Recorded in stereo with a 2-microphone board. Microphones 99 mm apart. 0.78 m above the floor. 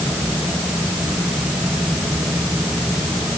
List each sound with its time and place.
Only background noise.